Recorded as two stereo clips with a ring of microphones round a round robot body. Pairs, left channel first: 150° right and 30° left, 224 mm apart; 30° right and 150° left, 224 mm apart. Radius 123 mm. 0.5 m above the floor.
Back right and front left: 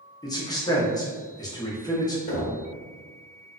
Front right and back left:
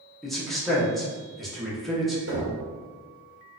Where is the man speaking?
115° right, 0.7 m.